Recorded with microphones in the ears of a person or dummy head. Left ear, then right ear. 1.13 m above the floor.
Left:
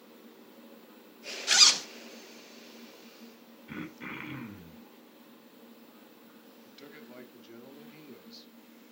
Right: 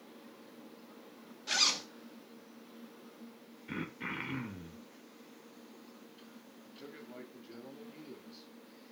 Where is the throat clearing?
10° right (ahead or behind), 2.5 m.